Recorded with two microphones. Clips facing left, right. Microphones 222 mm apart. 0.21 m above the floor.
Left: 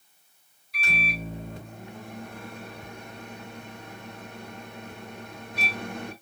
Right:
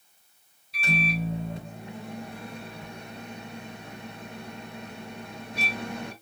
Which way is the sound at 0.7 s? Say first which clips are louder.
Right 6 dB; 30° right (ahead or behind).